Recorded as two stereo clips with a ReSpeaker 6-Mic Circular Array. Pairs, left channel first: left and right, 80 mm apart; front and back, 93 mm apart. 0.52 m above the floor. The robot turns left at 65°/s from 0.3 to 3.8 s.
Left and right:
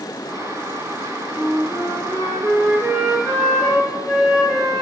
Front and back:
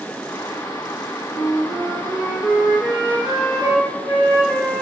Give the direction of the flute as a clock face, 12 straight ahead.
1 o'clock.